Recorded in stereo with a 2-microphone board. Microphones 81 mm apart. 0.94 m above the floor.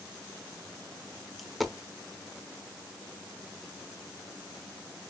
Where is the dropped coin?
Centre (ahead or behind), 0.8 m.